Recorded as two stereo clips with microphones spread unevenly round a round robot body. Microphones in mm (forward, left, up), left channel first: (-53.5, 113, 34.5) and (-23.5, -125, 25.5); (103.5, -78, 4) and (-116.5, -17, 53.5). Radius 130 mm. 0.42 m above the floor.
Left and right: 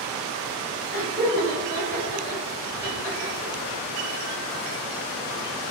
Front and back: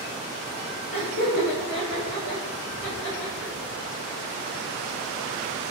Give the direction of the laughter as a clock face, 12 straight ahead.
12 o'clock.